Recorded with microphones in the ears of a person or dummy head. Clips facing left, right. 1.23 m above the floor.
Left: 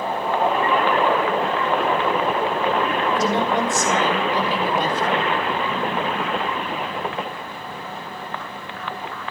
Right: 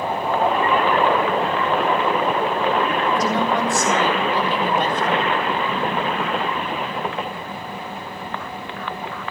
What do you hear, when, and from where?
3.1 s a woman speaking: 20° left (ahead or behind), 6 m; by 5.3 s 5° left (ahead or behind), 7.5 m